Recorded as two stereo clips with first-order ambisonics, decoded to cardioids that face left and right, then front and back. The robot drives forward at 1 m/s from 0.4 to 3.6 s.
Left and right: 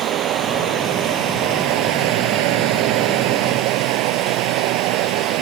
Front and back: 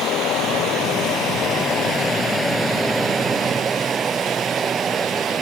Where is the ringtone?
No ringtone in this recording.